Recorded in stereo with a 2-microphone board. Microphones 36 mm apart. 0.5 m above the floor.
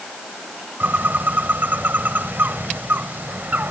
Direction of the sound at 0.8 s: 65° right (ahead or behind).